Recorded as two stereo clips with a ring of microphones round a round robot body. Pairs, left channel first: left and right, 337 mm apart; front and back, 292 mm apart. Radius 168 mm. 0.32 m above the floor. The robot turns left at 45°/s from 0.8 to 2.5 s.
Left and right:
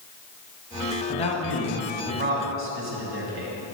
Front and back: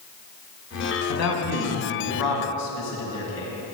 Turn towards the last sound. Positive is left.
turn(degrees=-40)